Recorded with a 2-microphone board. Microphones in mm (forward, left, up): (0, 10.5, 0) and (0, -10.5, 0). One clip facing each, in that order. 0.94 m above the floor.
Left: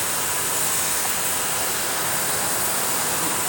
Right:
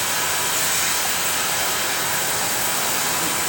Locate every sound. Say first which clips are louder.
0.0 s running water: right 4 dB; 50° right (ahead or behind), 5.5 m